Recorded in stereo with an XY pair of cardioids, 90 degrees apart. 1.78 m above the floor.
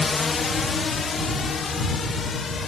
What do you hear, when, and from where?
0.0 s a drone: 30° left; by 2.7 s 45° left